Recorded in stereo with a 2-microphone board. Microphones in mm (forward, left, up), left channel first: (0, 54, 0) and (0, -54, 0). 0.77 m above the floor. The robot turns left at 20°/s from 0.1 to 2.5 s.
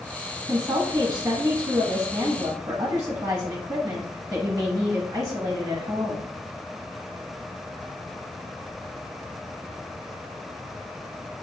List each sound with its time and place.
0.5 s a woman speaking: 65° right, 0.9 m; by 6.3 s 105° right, 0.9 m